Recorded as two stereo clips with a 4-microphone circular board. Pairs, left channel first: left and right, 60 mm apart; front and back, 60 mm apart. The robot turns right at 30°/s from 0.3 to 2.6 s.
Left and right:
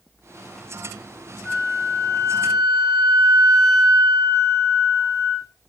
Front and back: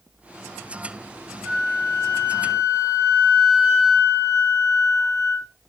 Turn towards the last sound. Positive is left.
turn(degrees=175)